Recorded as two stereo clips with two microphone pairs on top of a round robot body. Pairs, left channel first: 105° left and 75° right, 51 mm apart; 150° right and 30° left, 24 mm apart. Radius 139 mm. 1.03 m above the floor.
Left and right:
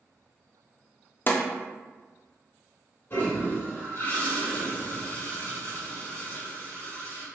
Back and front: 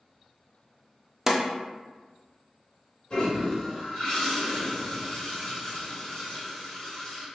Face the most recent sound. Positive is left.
turn(degrees=155)